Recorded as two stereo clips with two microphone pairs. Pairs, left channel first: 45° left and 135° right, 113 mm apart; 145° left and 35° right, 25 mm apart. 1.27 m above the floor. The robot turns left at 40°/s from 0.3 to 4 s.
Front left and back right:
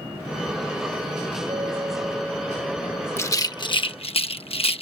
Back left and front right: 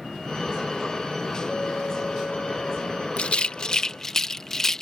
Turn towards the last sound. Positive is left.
turn(degrees=75)